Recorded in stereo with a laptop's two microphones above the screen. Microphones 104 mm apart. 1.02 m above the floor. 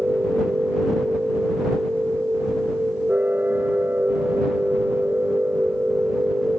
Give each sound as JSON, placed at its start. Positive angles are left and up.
{"t": 0.0, "sound": "a machine running", "side_deg": -20}